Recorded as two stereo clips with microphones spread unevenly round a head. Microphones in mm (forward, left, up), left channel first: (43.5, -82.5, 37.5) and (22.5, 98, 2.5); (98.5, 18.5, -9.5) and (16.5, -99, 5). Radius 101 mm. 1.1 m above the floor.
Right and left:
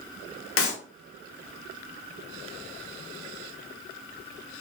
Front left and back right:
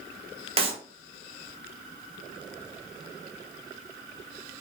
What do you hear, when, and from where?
0.6 s a clap: 75° right, 0.9 m